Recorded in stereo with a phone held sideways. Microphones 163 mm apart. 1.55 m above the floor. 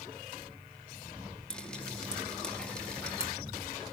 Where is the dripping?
5° left (ahead or behind), 3 m.